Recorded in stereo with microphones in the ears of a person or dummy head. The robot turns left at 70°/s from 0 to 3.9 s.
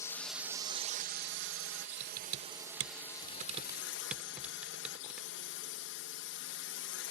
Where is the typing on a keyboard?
40° right (ahead or behind); by 5.3 s 5° right (ahead or behind).